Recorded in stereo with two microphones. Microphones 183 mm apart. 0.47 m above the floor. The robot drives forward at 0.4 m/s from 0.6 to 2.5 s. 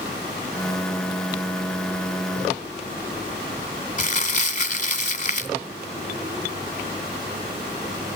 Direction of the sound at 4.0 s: 40° left (ahead or behind).